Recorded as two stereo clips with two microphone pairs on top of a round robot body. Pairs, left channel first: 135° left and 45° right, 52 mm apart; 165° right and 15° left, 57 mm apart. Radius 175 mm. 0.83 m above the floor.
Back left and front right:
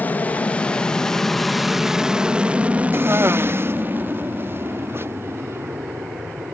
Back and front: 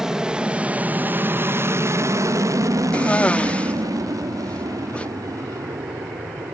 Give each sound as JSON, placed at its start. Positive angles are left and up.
{"t": 0.0, "sound": "an aircraft", "azimuth_deg": 105}
{"t": 2.9, "sound": "a cough", "azimuth_deg": -95}